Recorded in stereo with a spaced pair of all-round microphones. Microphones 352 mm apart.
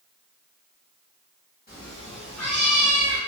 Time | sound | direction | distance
1.7 | a cat meowing | 30° left (ahead or behind) | 1.0 m